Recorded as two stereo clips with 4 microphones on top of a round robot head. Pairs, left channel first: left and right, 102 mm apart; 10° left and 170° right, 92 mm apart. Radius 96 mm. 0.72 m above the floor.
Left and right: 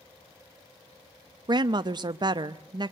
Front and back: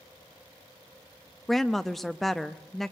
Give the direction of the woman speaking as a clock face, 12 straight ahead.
3 o'clock.